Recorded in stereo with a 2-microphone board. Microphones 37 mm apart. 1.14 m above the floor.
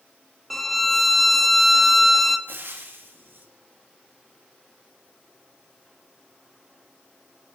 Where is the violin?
Centre (ahead or behind), 1.0 m.